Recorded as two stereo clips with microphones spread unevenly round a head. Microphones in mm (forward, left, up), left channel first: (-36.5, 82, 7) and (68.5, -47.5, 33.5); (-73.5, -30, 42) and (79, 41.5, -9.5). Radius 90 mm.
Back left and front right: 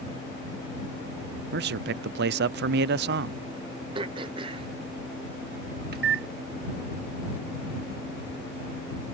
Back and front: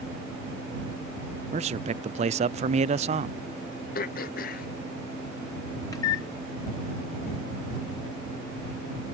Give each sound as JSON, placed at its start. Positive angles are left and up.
{"t": 1.5, "sound": "a man speaking", "azimuth_deg": -30}
{"t": 4.0, "sound": "throat clearing", "azimuth_deg": -115}
{"t": 5.9, "sound": "a microwave", "azimuth_deg": -90}